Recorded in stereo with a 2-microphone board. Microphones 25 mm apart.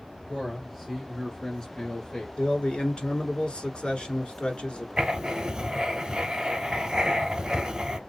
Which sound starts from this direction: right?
Writing, at 5.0 s.